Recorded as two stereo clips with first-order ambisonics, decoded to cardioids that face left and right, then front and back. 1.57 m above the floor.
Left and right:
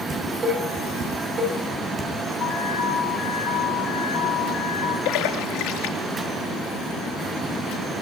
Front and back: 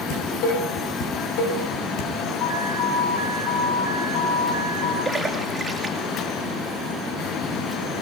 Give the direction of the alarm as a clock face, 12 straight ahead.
11 o'clock.